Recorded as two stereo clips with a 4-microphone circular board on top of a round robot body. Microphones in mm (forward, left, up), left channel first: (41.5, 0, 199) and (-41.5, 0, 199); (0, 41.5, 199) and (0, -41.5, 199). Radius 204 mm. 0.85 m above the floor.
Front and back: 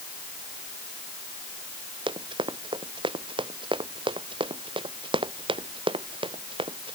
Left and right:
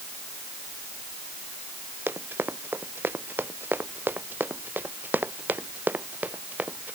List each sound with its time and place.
2.1 s running footsteps: 155° right; by 7.0 s 160° right